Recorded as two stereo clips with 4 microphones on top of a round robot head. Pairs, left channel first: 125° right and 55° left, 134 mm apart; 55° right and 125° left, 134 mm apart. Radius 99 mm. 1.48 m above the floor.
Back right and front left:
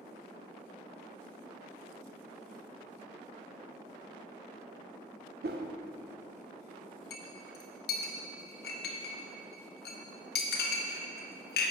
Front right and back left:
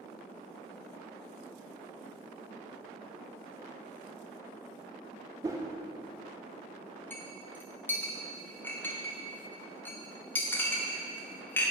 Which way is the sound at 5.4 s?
60° left.